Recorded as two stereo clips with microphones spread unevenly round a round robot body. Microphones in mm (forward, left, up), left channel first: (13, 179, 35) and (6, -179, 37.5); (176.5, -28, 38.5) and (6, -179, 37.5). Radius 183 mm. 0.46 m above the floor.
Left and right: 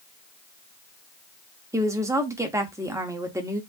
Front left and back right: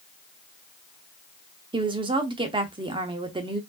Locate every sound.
1.7 s a woman speaking: 160° right, 0.8 m